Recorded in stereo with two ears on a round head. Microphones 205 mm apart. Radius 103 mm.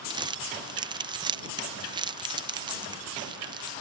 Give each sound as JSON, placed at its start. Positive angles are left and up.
{"t": 0.1, "sound": "crumpling", "side_deg": -20}